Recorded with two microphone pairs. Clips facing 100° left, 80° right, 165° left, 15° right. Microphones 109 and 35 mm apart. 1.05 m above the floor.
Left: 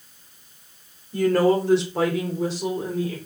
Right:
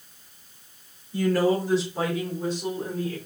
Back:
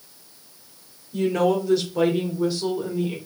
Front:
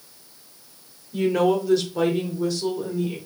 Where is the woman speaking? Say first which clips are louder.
Left 4 dB, front 1 dB; 60° left, 3 m; by 3.2 s 105° left, 4 m.